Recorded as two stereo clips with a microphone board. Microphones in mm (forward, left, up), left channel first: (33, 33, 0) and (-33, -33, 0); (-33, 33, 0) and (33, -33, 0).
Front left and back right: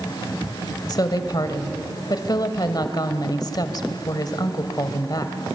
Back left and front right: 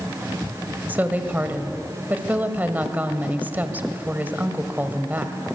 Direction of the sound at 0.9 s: 20° left.